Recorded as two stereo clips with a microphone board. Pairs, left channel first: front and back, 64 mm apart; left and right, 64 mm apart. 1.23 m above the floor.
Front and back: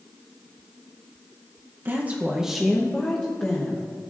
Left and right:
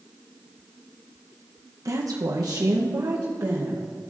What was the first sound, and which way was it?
A woman speaking, 125° right.